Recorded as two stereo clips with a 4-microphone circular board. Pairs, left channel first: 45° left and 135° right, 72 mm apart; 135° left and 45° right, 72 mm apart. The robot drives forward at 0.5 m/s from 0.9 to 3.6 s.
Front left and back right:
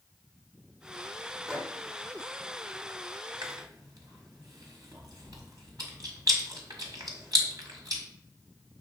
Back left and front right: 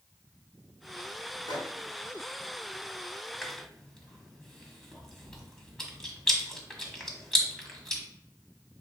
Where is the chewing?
140° right, 1.5 m; by 8.0 s 145° right, 1.6 m.